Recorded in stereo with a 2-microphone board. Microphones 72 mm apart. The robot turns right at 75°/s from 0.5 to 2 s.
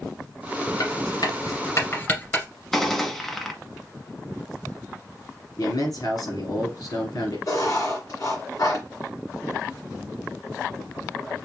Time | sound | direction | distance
0.8 | writing | 50° left (ahead or behind) | 1.7 m
2.7 | a gunshot | 5° left (ahead or behind) | 0.9 m
5.6 | a man speaking | 60° left (ahead or behind) | 2.5 m
7.5 | writing | 50° left (ahead or behind) | 2 m